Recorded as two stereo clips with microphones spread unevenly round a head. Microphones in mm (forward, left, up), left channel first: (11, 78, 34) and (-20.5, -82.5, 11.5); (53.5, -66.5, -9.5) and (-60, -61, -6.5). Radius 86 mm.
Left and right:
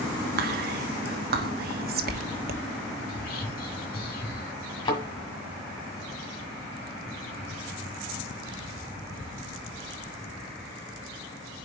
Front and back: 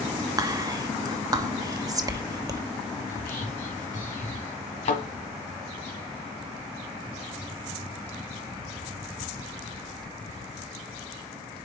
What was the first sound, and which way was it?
Whispering, 125° right.